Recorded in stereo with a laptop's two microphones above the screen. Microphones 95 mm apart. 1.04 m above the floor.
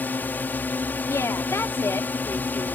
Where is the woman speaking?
30° left (ahead or behind).